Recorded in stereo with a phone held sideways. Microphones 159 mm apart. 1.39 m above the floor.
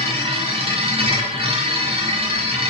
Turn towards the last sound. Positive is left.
turn(degrees=-35)  # may be behind; listen again after turning